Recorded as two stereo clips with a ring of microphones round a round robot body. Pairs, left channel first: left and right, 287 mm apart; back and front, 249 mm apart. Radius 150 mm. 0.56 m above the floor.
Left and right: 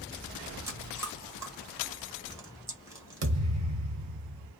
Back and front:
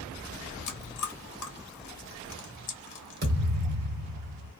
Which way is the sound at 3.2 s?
55° right.